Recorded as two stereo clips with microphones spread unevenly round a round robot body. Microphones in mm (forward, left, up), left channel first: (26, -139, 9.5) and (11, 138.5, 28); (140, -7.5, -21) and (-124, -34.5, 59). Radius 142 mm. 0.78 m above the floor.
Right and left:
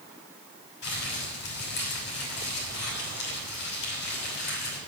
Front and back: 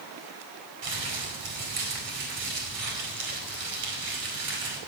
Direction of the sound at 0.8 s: 140° right.